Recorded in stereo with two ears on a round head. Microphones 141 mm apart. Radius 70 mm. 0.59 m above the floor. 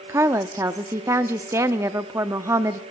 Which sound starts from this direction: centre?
A woman speaking, at 0.1 s.